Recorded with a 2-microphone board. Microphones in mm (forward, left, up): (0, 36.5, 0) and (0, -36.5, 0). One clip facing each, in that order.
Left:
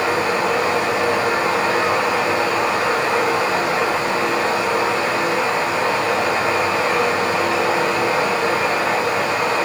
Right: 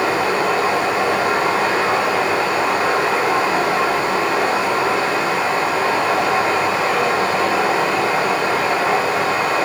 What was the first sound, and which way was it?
Running water, 40° right (ahead or behind).